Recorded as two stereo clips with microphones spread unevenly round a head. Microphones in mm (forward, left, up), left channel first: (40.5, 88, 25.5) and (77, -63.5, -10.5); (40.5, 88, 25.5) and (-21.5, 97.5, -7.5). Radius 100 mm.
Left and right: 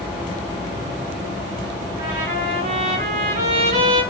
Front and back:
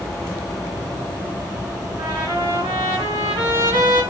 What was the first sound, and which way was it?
A trumpet, 140° right.